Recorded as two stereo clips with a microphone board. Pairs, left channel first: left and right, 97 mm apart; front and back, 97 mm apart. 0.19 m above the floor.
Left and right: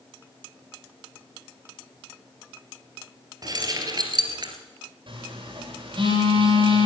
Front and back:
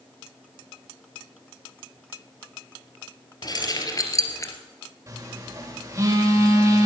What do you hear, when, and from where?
3.4 s keys jangling: 45° right, 2.5 m; by 4.5 s 55° right, 2 m
5.1 s a phone buzzing: 125° right, 9 m